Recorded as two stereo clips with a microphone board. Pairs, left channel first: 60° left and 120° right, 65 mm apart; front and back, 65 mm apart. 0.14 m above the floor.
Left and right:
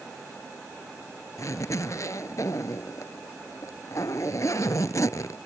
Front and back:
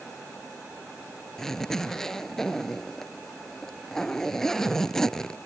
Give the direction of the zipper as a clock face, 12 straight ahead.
9 o'clock.